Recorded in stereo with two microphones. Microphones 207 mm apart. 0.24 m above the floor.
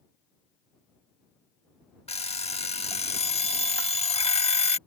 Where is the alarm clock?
30° left (ahead or behind).